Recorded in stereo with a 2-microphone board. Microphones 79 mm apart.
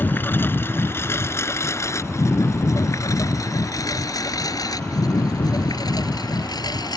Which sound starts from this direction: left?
A lawn mower, at 0.0 s.